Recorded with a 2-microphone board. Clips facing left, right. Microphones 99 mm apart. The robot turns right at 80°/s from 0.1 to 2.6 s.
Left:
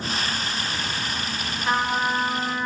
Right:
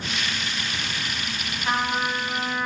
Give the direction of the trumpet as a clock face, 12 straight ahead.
12 o'clock.